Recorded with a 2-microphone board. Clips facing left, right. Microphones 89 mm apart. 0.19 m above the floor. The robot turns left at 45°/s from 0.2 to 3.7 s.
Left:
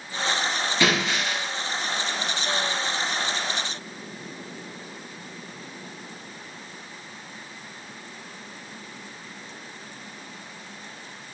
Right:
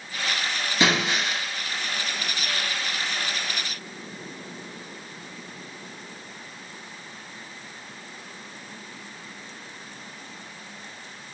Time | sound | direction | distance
0.8 | breaking glass | 30° right (ahead or behind) | 1.7 m